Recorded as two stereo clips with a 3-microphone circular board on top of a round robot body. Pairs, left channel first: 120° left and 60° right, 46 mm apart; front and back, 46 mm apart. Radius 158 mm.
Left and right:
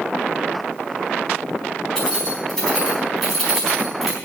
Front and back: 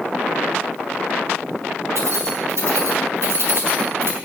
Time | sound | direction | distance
1.9 | keys jangling | 160° right | 4.5 m